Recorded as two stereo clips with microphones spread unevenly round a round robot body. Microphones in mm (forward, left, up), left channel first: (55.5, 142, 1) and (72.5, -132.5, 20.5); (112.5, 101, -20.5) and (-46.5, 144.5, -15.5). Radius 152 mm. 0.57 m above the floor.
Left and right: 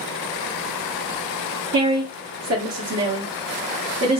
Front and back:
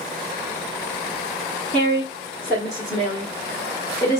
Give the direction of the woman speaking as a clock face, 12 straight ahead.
3 o'clock.